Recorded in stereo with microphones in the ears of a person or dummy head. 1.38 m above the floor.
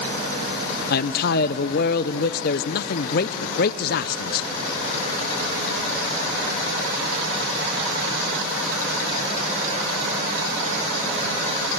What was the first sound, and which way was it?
A man speaking, 55° left (ahead or behind).